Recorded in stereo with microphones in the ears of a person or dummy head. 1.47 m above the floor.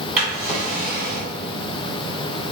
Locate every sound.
0.2 s a drawer: 10° right (ahead or behind), 1.9 m